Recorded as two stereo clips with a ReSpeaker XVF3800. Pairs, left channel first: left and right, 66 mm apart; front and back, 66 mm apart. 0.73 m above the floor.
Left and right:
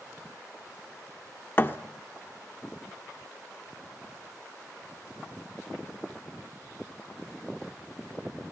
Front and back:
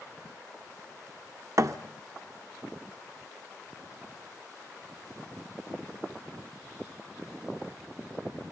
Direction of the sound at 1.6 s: 145° left.